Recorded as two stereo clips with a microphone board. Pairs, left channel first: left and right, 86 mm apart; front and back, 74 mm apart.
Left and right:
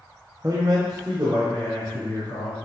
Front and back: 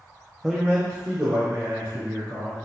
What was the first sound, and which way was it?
A man speaking, 80° right.